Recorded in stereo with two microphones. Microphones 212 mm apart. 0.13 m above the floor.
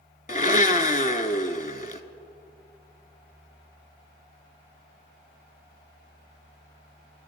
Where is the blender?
40° left (ahead or behind), 0.6 m.